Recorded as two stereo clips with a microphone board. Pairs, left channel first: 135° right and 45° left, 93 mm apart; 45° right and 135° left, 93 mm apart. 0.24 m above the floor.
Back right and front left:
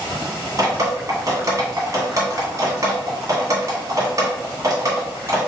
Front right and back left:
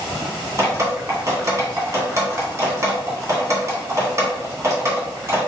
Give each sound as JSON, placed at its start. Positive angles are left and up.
{"t": 0.6, "sound": "dripping", "azimuth_deg": 85, "distance_m": 1.9}